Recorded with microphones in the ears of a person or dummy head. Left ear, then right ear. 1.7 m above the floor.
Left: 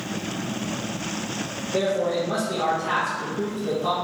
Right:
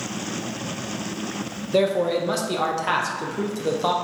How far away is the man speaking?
About 0.6 m.